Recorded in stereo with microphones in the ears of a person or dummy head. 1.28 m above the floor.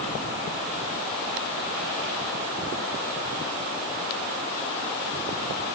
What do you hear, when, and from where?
Only background noise.